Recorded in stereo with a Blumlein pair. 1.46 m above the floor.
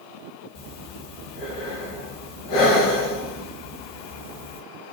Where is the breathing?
45° left, 1.0 m.